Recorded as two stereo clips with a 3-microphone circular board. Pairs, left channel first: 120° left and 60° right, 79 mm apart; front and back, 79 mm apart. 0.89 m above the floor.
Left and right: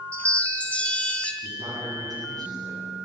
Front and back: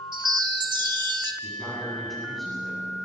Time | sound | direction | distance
0.1 | a chime | 165° right | 1.5 m
1.4 | a man speaking | 85° right | 7.5 m